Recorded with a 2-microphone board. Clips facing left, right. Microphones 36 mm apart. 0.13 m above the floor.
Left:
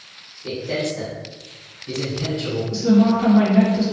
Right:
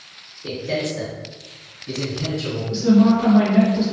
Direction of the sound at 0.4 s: 45° right (ahead or behind).